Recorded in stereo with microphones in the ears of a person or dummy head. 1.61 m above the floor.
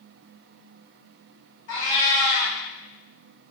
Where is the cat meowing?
40° left (ahead or behind), 1.9 m.